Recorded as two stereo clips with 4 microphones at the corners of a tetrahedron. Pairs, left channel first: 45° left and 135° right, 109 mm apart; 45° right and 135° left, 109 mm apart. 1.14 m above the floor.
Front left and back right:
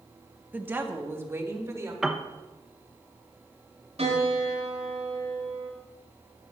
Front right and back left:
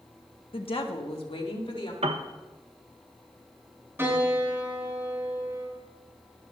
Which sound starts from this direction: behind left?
A piano, at 2.0 s.